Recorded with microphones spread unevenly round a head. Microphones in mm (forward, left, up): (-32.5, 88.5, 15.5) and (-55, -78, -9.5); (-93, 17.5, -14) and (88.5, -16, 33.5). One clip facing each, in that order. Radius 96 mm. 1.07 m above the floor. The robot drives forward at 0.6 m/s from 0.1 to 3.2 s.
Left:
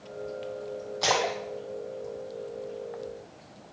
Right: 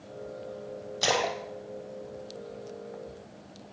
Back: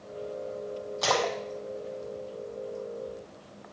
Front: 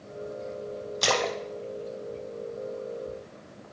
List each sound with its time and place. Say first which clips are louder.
1.0 s a splash: left 1 dB, even; 35° right, 1.4 m; by 3.2 s 120° right, 1.1 m